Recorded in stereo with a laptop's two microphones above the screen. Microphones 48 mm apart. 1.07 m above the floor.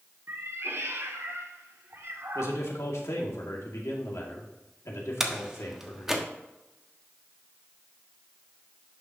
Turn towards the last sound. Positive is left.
turn(degrees=-10)  # may be behind; listen again after turning